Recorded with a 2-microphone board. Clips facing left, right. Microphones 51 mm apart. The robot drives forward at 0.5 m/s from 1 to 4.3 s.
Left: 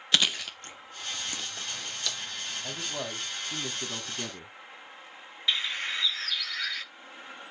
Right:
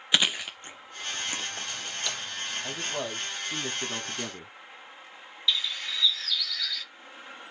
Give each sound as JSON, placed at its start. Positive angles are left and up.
{"t": 0.1, "sound": "chewing", "side_deg": -15, "distance_m": 1.2}
{"t": 2.6, "sound": "a man speaking", "side_deg": -10, "distance_m": 1.4}
{"t": 5.5, "sound": "a bird", "side_deg": 40, "distance_m": 0.7}